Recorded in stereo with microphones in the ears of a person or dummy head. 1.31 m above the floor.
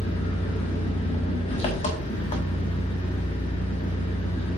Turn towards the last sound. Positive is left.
turn(degrees=30)  # may be behind; listen again after turning